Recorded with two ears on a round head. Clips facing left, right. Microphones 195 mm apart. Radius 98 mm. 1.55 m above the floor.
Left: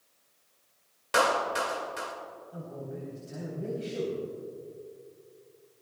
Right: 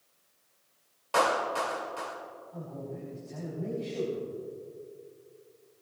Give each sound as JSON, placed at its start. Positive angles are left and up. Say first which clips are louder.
{"t": 1.1, "sound": "a clap", "louder": "left 1 dB", "side_deg": 25, "distance_m": 2.5}
{"t": 2.5, "sound": "a man speaking", "louder": "even", "side_deg": 20, "distance_m": 3.5}